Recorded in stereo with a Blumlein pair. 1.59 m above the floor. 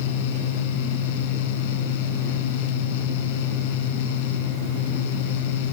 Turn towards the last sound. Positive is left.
turn(degrees=50)